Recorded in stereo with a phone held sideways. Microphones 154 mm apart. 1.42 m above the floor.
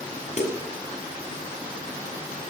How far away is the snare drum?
About 8 m.